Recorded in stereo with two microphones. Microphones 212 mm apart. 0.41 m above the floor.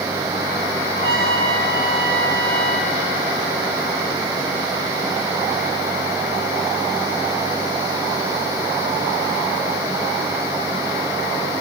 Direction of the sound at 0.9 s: 70° right (ahead or behind).